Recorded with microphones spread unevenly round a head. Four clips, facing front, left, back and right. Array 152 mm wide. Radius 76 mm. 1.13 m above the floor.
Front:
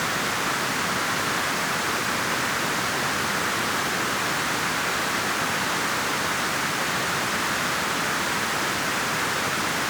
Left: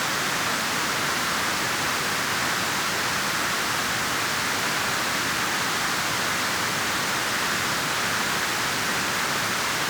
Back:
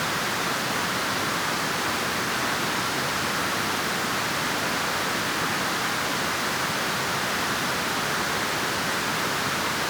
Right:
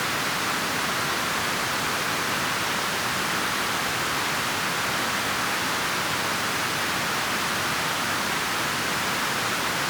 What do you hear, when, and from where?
Only background noise.